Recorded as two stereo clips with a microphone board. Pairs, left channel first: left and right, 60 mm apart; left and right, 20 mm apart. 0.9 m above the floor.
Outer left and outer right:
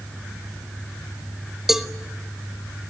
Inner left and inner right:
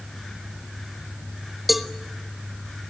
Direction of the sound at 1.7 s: 5° right (ahead or behind).